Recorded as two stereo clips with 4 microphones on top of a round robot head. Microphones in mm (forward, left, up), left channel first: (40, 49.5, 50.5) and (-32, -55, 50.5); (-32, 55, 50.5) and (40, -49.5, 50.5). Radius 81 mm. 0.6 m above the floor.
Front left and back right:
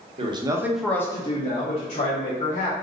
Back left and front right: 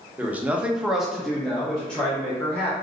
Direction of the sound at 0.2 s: 130° right.